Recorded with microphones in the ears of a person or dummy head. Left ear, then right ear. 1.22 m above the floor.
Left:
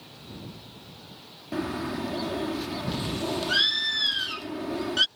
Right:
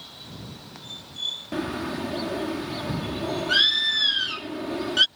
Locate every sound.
1.5 s a bird: 10° right (ahead or behind)